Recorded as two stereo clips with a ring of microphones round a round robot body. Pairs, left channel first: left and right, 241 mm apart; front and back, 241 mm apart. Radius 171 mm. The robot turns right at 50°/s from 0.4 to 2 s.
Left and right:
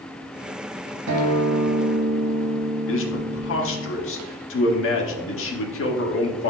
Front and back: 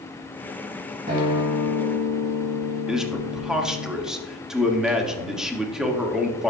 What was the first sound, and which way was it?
A guitar, 115° right.